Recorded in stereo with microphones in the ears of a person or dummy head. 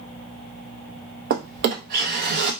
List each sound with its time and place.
1.3 s a drawer: 55° right (ahead or behind), 0.7 m